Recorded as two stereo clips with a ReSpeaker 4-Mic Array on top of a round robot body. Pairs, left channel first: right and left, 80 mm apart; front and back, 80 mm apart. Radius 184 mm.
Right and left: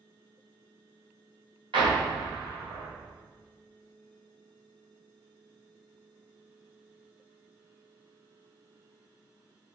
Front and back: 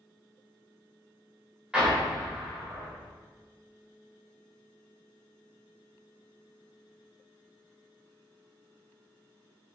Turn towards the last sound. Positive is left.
turn(degrees=100)